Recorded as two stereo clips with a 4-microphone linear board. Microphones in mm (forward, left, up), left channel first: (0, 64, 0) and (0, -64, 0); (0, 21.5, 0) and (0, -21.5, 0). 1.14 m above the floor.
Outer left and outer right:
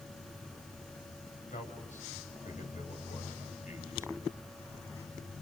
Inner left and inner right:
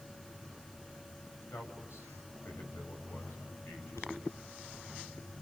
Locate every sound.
1.5 s a man speaking: 85° left, 6.5 m